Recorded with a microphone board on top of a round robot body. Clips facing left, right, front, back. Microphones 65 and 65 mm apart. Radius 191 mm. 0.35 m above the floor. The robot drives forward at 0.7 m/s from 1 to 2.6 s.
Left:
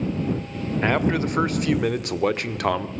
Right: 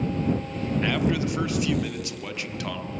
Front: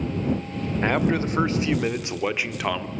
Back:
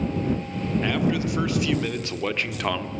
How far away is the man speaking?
About 2.0 m.